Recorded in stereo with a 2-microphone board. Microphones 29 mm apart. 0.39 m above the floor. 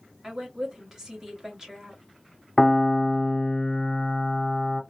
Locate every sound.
0.2 s a woman speaking: 15° right (ahead or behind), 1.9 m
2.6 s a piano: 15° left (ahead or behind), 0.9 m